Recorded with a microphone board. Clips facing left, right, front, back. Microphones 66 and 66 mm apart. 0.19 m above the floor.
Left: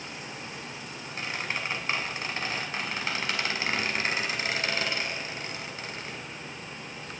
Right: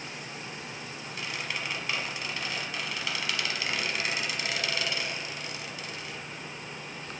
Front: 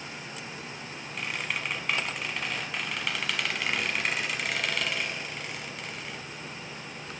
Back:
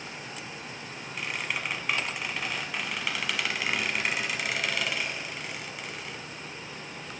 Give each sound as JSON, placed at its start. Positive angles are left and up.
{"t": 1.2, "sound": "a squeak", "azimuth_deg": 95, "distance_m": 0.9}